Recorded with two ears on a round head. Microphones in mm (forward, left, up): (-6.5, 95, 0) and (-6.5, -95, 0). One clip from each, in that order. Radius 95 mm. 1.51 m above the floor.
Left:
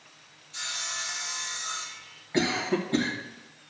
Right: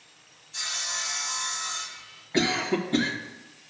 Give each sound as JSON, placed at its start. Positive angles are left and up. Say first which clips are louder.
{"t": 0.5, "sound": "sawing", "louder": "right 2 dB", "side_deg": 5, "distance_m": 1.8}
{"t": 2.3, "sound": "a cough", "louder": "right 2 dB", "side_deg": 5, "distance_m": 2.0}